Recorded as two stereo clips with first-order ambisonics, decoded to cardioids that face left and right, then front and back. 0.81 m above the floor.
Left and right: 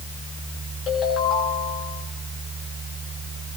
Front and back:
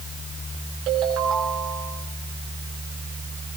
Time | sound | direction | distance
0.9 | a ringtone | 140° left | 6.5 m